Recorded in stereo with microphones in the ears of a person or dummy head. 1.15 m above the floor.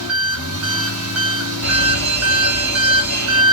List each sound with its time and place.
0.0 s an engine running: 70° right (ahead or behind), 1.0 m
1.6 s a fire alarm: 30° right (ahead or behind), 1.7 m